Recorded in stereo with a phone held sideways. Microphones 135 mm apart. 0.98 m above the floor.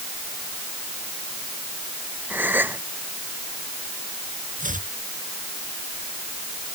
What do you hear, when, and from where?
2.3 s a gasp: 15° right (ahead or behind)
4.6 s chopping: 75° right (ahead or behind)